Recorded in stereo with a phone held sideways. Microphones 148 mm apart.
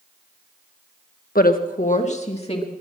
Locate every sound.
1.4 s a woman speaking: 85° left, 1.2 m; by 2.7 s 40° left (ahead or behind), 2.5 m